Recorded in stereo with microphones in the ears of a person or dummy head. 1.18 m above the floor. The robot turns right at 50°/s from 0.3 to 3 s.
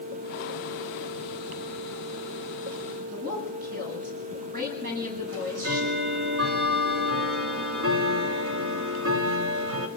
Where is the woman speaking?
45° right (ahead or behind), 9.5 m.